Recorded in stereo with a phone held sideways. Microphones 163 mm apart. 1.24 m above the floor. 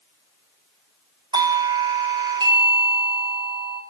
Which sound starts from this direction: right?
A doorbell, at 1.3 s.